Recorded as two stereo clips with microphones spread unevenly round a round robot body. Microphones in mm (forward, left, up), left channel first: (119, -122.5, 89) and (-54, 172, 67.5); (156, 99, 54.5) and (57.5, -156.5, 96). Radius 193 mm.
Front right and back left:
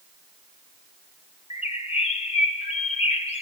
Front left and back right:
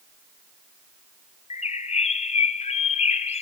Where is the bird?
Straight ahead, 0.9 m.